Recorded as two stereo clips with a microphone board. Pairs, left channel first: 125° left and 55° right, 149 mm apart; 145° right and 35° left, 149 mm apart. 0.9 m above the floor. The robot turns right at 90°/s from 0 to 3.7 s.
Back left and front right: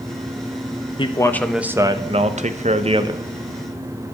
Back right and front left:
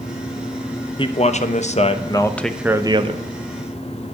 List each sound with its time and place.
1.0 s a man speaking: 165° left, 0.8 m; by 3.3 s 10° left, 0.8 m